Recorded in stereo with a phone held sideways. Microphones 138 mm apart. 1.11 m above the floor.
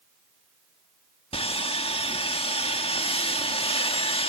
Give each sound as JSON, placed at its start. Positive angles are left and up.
{"t": 1.3, "sound": "sawing", "side_deg": 45, "distance_m": 1.7}